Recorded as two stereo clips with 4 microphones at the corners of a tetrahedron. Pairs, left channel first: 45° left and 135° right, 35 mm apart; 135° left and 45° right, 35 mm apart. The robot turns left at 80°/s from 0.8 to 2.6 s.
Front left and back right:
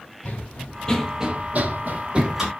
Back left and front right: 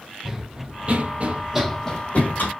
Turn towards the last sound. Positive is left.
turn(degrees=130)